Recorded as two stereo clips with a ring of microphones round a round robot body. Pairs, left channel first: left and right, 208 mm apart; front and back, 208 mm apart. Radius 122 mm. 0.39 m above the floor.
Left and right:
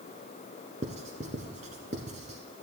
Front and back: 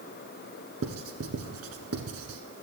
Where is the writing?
150° right, 1.0 m.